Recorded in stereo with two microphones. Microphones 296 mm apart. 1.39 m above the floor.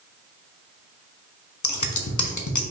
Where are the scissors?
75° left (ahead or behind), 0.6 m.